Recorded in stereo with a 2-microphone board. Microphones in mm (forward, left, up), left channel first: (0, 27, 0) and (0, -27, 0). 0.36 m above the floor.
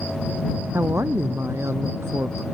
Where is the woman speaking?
55° right (ahead or behind).